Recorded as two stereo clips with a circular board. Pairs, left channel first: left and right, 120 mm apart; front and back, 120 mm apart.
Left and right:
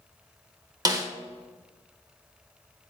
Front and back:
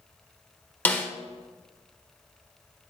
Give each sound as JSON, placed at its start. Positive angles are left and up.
{"t": 0.8, "sound": "a snare drum", "azimuth_deg": -65, "distance_m": 0.9}